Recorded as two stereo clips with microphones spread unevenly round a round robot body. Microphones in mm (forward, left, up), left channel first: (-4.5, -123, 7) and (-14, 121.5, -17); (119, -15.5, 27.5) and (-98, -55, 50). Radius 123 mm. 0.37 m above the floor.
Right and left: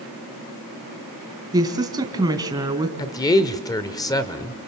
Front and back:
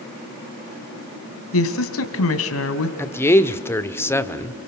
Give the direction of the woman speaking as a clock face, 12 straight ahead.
11 o'clock.